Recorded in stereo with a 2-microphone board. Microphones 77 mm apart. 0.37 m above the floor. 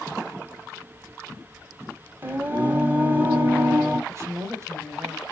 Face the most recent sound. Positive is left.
turn(degrees=-40)  # may be behind; listen again after turning